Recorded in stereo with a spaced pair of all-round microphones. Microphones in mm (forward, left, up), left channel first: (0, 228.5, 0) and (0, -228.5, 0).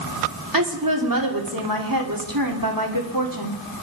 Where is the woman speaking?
45° right (ahead or behind), 3 m.